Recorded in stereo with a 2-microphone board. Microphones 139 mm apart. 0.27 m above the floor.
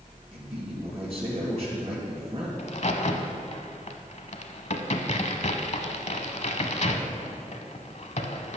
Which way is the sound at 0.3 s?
40° right (ahead or behind).